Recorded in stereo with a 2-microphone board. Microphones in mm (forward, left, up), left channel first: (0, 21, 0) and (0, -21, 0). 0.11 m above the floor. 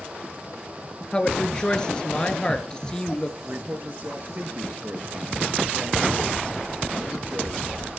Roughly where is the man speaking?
Right.